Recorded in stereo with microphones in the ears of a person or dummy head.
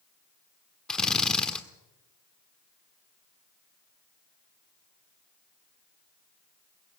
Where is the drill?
Centre (ahead or behind), 1.4 m.